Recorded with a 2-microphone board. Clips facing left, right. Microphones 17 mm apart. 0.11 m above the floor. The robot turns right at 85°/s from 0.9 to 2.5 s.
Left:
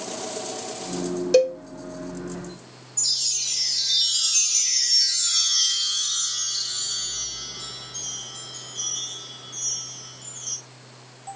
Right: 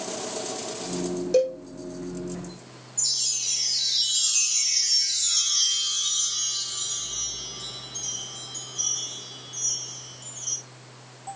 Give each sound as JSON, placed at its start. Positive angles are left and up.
{"t": 1.3, "sound": "a cowbell", "side_deg": 35, "distance_m": 1.9}
{"t": 3.0, "sound": "a chime", "side_deg": 85, "distance_m": 8.0}